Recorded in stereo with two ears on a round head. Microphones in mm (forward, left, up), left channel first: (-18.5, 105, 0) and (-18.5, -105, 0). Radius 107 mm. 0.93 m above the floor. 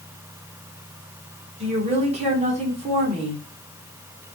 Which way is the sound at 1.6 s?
30° right (ahead or behind).